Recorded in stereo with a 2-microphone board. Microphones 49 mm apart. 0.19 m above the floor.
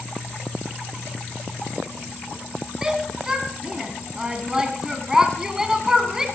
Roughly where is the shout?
Centre.